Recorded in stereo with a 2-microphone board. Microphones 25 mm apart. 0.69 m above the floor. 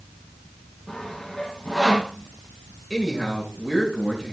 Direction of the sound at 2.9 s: 5° left (ahead or behind).